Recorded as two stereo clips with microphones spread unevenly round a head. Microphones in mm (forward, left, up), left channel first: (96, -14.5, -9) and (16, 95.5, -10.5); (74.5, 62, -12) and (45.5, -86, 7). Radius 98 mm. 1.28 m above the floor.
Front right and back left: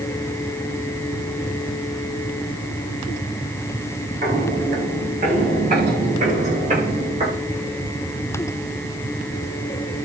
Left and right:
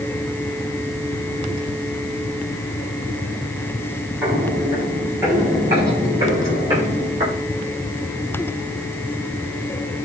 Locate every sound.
4.2 s footsteps: straight behind, 9 m; by 7.4 s 170° right, 9.5 m